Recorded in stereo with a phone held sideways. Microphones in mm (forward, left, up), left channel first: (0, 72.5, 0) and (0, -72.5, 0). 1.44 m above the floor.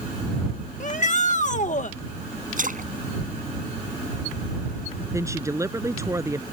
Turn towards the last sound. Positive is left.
turn(degrees=-20)  # may be behind; listen again after turning